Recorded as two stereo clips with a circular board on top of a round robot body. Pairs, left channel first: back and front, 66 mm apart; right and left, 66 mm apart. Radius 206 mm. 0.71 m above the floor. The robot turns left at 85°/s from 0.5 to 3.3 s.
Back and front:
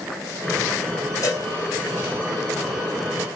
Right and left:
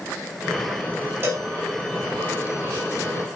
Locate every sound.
1.2 s a cowbell: 145° left, 5.5 m; by 1.5 s 125° left, 5.5 m